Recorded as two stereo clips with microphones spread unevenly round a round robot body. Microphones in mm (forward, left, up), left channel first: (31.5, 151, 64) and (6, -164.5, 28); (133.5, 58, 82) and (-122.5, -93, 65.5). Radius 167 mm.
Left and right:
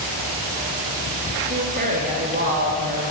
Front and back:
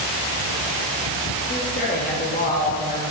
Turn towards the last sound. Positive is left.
turn(degrees=-30)